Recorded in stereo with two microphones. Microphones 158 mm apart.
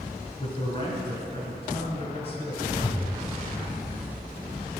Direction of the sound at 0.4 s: 40° left (ahead or behind).